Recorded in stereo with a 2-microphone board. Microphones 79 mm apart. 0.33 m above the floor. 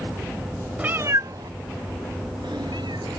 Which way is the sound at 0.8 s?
15° right (ahead or behind).